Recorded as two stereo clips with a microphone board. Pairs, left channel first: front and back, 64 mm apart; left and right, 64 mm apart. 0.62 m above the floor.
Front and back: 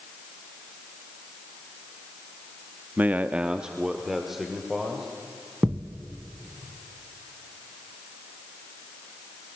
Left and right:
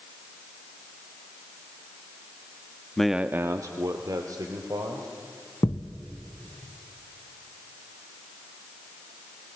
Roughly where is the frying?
No frying in this recording.